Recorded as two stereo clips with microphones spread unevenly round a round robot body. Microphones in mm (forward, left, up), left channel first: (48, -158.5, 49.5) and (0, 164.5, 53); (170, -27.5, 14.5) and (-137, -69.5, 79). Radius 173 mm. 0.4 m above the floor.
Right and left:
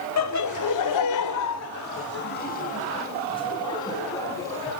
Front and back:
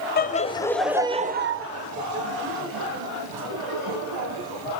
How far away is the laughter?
About 1.6 m.